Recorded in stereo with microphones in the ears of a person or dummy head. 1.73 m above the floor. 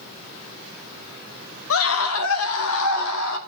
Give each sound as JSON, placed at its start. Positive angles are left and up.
{"t": 1.7, "sound": "a scream", "side_deg": 75, "distance_m": 1.2}